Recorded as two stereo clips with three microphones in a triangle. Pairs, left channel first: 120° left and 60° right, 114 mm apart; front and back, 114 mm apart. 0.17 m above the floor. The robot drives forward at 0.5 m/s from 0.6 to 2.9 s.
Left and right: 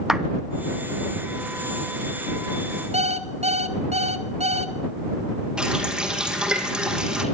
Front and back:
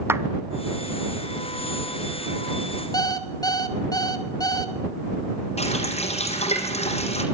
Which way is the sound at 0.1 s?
140° right.